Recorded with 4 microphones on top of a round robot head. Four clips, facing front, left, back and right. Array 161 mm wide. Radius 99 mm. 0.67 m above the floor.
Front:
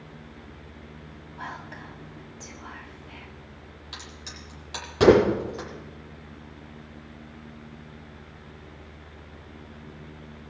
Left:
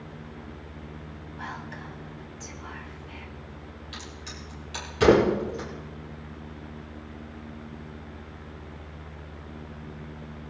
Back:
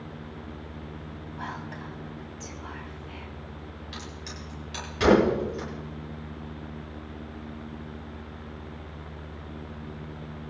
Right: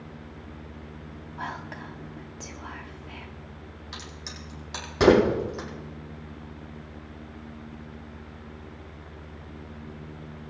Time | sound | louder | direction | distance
1.4 | whispering | right 3 dB, back 1 dB | 95° right | 1.4 m
3.9 | a crack | right 1 dB, back 1 dB | 50° right | 8 m